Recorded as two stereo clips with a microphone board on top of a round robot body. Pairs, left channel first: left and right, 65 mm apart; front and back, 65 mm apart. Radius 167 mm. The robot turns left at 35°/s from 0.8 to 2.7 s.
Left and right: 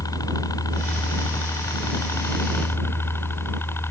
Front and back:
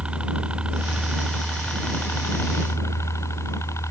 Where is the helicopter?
105° left; by 3.9 s 40° left.